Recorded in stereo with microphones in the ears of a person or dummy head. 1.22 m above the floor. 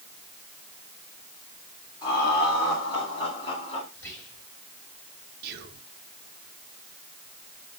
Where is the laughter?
25° left (ahead or behind), 3 m; by 3.8 s 30° left (ahead or behind), 2 m.